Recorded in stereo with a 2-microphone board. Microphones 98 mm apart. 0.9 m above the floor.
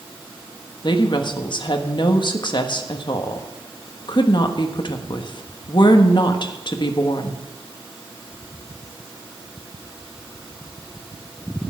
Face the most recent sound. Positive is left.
turn(degrees=50)  # may be behind; listen again after turning